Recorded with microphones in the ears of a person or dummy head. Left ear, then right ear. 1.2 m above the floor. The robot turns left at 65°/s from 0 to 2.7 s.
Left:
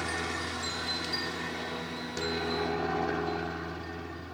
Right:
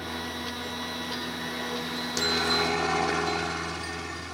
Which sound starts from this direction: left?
A helicopter, at 0.0 s.